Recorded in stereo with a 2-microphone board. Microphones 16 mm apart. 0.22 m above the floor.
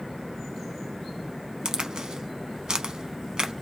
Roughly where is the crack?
Right.